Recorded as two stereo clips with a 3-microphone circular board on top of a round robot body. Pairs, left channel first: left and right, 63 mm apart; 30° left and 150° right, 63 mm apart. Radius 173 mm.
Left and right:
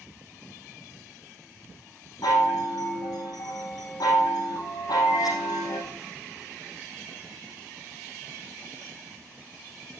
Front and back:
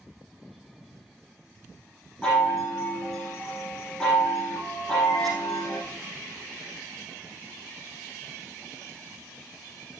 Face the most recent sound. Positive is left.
turn(degrees=110)